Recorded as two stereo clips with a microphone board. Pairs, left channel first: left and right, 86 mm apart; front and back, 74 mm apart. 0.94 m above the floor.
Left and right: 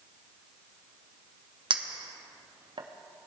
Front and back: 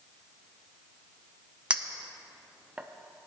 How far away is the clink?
About 0.6 m.